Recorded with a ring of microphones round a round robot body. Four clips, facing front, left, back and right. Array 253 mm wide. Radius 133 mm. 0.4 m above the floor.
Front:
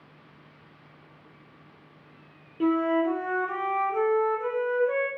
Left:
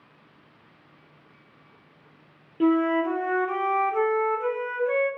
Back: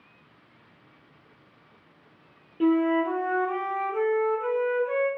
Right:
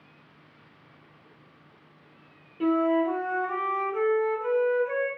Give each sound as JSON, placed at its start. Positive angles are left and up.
{"t": 2.6, "sound": "a flute", "azimuth_deg": 95, "distance_m": 1.0}